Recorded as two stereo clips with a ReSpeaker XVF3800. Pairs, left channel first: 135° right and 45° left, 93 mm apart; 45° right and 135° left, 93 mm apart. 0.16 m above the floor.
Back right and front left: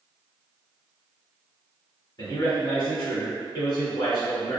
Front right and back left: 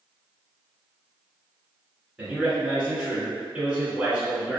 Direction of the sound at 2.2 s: 150° right.